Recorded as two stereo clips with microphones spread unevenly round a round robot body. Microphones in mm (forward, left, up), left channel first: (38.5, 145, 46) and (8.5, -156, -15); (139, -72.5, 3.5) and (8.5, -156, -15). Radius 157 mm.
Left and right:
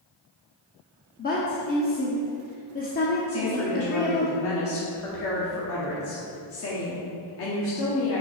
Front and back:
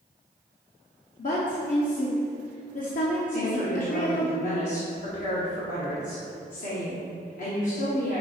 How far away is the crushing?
I don't hear crushing.